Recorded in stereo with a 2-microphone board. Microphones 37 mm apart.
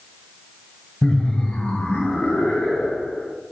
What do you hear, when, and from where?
1.0 s laughter: 20° left (ahead or behind), 1.5 m; by 3.3 s 30° left (ahead or behind), 2.5 m